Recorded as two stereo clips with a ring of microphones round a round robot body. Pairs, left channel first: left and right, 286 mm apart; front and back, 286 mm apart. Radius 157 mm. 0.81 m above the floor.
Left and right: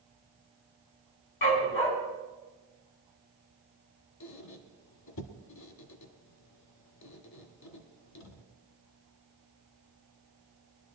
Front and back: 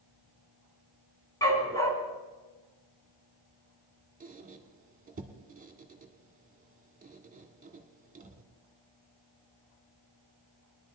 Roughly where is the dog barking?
Left.